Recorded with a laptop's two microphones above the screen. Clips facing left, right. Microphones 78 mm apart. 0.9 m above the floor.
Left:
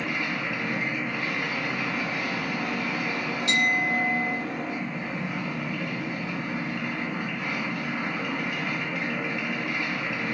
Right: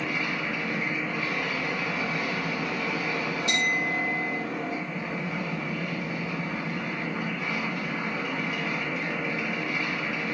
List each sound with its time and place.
0.0 s a machine running: 70° left (ahead or behind), 2.5 m
3.5 s a clink: 70° left (ahead or behind), 2 m